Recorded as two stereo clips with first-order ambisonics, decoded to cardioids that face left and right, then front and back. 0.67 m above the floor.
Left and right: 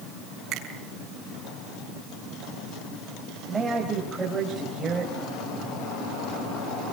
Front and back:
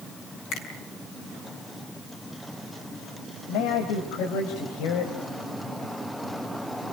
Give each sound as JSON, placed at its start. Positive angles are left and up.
{"t": 0.5, "sound": "a finger snap", "azimuth_deg": -40, "distance_m": 5.0}
{"t": 3.5, "sound": "a man speaking", "azimuth_deg": -10, "distance_m": 3.5}